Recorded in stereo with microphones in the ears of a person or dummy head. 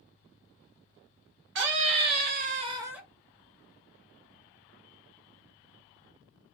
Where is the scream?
55° right (ahead or behind), 0.9 m; by 3.0 s centre (ahead or behind), 0.5 m.